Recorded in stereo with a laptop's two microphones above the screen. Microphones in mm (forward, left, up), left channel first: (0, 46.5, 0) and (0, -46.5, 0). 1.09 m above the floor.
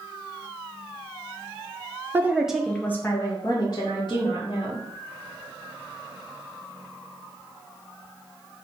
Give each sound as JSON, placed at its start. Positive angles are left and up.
{"t": 2.1, "sound": "a woman speaking", "side_deg": -25, "distance_m": 0.6}